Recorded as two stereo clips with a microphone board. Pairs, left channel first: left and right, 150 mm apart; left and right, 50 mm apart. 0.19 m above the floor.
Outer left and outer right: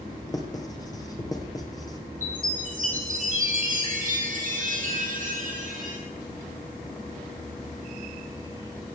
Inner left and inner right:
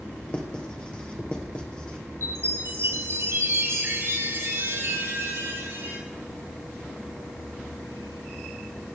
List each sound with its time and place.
0.3 s writing: 25° left (ahead or behind), 2 m
2.2 s a chime: 60° right (ahead or behind), 4 m